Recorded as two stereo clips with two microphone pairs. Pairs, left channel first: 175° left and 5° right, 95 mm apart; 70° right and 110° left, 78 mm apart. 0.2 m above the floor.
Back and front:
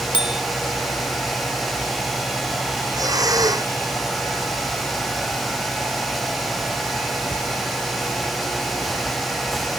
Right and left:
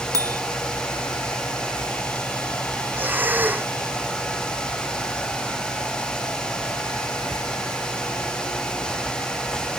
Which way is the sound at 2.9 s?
45° left.